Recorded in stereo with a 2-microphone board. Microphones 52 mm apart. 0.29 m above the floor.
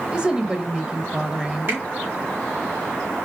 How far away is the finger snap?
About 3.5 m.